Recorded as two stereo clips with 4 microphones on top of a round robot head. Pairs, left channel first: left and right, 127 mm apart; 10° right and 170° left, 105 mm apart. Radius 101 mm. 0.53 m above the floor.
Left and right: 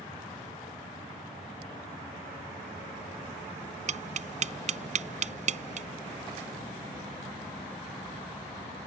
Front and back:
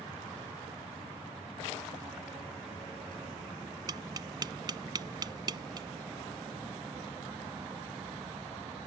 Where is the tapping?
125° right.